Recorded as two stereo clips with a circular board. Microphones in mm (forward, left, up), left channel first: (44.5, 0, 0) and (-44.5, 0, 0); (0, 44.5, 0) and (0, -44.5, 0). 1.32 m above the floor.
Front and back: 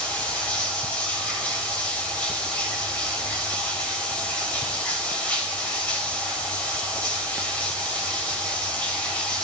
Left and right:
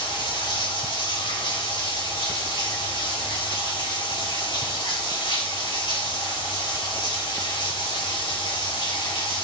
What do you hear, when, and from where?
0.0 s running water: 75° left, 3 m